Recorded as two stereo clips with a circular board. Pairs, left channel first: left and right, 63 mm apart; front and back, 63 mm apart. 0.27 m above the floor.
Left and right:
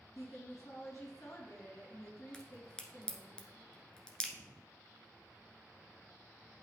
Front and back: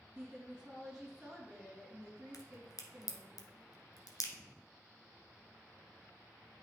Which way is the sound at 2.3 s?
10° left.